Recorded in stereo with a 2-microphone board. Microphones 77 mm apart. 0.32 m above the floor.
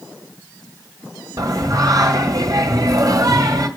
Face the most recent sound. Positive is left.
turn(degrees=-45)  # may be behind; listen again after turning